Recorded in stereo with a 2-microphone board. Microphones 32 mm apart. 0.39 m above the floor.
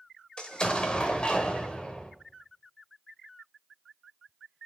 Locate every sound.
0.4 s an explosion: 30° left (ahead or behind), 1.1 m